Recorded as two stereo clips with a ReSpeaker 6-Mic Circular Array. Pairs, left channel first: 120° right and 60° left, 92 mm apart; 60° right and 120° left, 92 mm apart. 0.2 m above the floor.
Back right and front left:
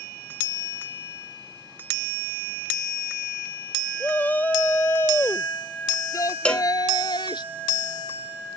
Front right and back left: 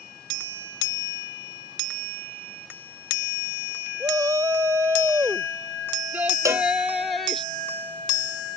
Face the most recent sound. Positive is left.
turn(degrees=165)